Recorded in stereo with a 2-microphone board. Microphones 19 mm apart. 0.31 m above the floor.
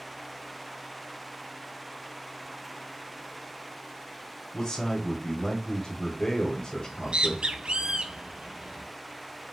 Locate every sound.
4.5 s a man speaking: 35° left (ahead or behind), 1.3 m
6.8 s a bird: 70° right (ahead or behind), 0.6 m